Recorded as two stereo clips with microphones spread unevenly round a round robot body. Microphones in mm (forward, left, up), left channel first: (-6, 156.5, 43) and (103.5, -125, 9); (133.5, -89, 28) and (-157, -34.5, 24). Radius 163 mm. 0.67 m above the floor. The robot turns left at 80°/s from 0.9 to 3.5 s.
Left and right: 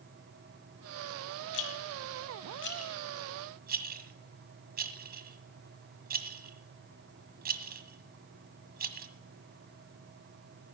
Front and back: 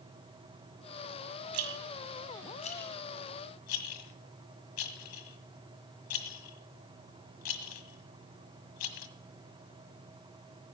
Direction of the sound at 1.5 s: 150° left.